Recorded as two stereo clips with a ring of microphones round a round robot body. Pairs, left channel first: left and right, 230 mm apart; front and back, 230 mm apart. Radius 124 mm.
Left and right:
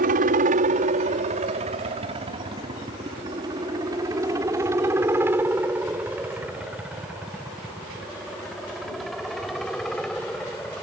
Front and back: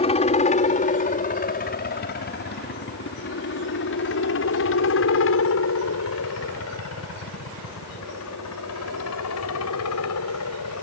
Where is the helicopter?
50° right; by 10.8 s 5° left.